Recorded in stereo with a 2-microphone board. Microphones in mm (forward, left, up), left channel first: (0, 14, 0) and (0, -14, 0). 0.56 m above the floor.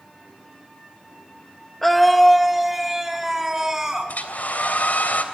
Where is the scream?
5° left (ahead or behind), 1.3 m; by 4.1 s 20° right (ahead or behind), 4.5 m.